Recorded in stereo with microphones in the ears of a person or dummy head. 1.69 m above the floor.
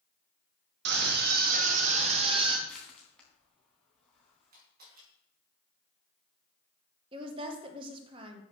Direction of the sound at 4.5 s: 60° right (ahead or behind).